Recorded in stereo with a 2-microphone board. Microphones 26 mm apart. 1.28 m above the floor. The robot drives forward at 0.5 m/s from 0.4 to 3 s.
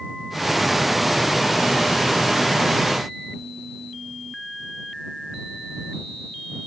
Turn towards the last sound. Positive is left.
No sound to turn to.